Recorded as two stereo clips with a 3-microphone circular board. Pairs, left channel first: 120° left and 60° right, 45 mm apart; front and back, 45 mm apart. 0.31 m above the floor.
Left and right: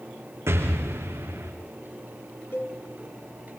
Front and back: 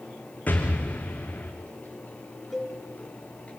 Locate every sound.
0.5 s an explosion: 55° right, 4 m
2.5 s a cowbell: 95° left, 5.5 m